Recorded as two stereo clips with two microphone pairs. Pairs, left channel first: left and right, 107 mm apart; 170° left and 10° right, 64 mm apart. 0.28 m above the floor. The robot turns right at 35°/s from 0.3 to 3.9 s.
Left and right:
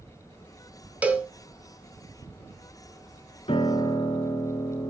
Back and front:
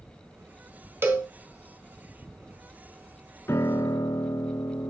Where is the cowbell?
25° right, 1.5 m; by 1.3 s 15° right, 1.5 m.